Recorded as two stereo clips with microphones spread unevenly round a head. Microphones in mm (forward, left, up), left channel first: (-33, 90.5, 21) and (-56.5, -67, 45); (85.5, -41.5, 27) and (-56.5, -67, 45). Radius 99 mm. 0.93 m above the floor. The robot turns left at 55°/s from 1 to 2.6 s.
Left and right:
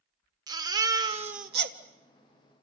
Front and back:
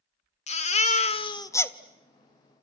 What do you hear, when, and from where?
0.5 s a baby crying: 30° right, 1.4 m; by 1.8 s 70° right, 1.4 m